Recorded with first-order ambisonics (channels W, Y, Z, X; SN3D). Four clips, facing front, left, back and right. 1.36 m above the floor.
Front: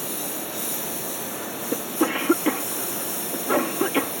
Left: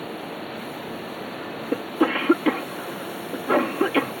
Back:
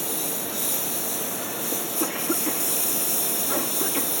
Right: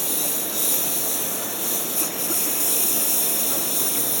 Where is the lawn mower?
100° right; by 4.2 s 115° right.